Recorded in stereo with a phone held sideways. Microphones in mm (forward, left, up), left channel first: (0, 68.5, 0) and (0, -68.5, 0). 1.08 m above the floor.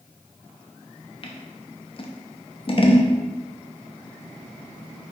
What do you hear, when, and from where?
1.2 s scissors: 40° left (ahead or behind), 0.5 m